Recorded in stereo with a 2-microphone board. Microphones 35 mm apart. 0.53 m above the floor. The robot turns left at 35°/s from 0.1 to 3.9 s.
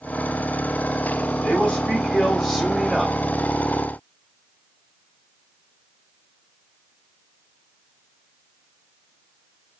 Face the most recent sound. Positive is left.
turn(degrees=-30)